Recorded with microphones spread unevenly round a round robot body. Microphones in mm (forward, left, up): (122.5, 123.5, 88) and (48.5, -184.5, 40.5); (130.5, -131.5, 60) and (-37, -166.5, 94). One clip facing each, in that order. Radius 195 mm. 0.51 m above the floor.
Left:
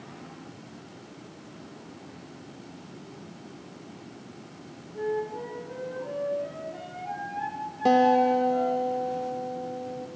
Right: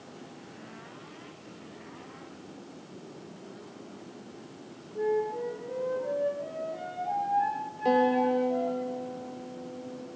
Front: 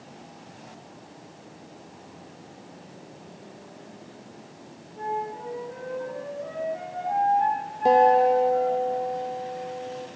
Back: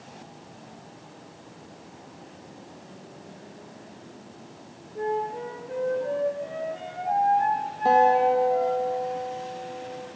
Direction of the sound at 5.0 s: 150° left.